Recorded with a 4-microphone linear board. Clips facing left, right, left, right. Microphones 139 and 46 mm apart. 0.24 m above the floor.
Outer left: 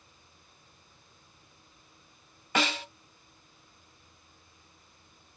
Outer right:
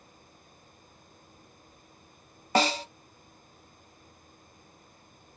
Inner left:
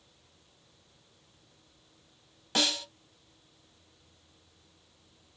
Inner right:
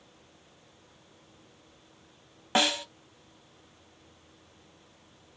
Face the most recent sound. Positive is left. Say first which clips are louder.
# outer right 5 dB, inner right 4 dB
turn(degrees=-35)  # may be behind; listen again after turning